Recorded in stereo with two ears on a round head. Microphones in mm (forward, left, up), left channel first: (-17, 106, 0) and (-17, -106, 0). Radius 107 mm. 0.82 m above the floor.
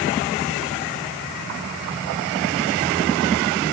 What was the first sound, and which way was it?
Only background noise.